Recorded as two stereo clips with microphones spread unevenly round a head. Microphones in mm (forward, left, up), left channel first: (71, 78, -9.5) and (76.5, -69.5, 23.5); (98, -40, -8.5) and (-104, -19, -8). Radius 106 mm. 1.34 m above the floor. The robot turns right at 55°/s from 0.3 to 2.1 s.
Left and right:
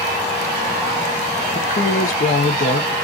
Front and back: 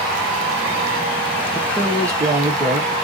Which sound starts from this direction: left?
A woman speaking, at 1.6 s.